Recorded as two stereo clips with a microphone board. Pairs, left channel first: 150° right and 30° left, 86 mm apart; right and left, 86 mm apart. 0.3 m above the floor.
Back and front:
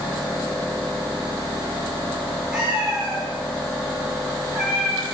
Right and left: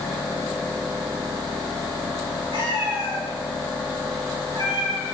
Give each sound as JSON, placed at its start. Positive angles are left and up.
{"t": 2.5, "sound": "a cat meowing", "azimuth_deg": 110, "distance_m": 5.0}